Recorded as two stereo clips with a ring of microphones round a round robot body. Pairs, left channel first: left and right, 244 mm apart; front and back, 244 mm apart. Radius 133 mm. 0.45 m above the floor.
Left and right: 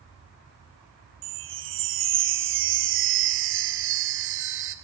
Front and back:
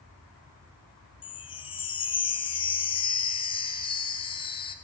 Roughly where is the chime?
Right.